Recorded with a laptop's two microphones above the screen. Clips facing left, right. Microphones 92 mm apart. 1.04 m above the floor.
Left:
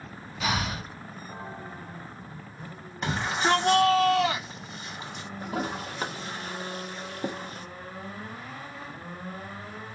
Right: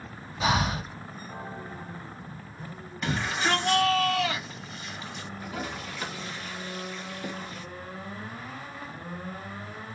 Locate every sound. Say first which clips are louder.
0.4 s breathing: right 4 dB; 25° right (ahead or behind), 1.2 m
3.0 s a shout: left 2 dB; 35° left (ahead or behind), 2.5 m
5.4 s a toilet flushing: left 5 dB; 35° left (ahead or behind), 0.7 m